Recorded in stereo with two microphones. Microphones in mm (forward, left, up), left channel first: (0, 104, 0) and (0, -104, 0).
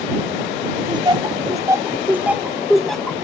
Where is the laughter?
25° right (ahead or behind); by 3.1 s 5° left (ahead or behind).